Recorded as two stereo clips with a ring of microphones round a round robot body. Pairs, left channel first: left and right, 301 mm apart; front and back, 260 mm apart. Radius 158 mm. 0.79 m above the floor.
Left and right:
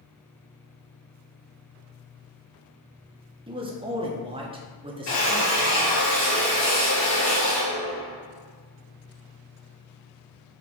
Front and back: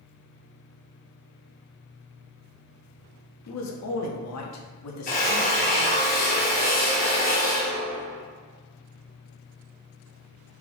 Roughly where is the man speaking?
Ahead.